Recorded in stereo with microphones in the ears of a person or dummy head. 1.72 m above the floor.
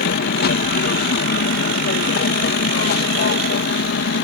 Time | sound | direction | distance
0.0 | an aircraft | 55° left (ahead or behind) | ?